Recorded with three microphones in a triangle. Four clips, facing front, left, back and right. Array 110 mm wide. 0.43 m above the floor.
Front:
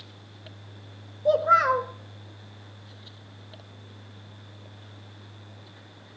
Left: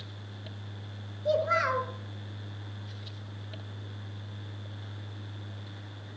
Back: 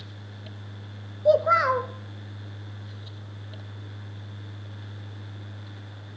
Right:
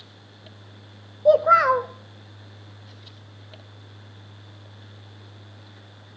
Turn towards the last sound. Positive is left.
turn(degrees=-100)